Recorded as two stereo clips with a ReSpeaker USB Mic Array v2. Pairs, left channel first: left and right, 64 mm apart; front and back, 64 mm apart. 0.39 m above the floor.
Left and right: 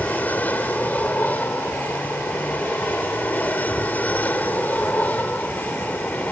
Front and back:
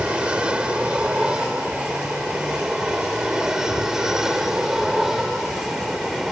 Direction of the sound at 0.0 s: 120° left.